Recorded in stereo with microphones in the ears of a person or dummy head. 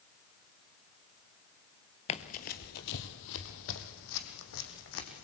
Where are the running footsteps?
35° left (ahead or behind), 1.4 m; by 5.2 s 70° left (ahead or behind), 4 m.